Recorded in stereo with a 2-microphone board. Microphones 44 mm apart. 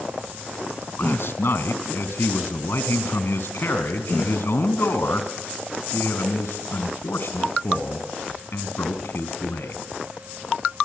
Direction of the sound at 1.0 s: 60° left (ahead or behind).